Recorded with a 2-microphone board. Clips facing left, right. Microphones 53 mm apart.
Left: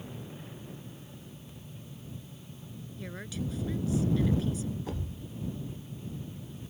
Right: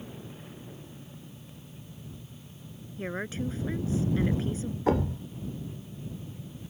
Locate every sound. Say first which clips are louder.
3.0 s a woman speaking: right 6 dB; 35° right (ahead or behind)
4.9 s a thud: right 13 dB; 65° right (ahead or behind)